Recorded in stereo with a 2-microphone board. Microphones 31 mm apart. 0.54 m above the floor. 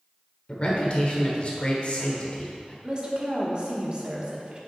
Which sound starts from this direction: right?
A woman speaking, at 2.8 s.